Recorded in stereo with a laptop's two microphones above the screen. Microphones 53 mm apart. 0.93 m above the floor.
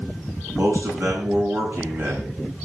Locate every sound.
0.5 s a man speaking: 55° right (ahead or behind), 8.5 m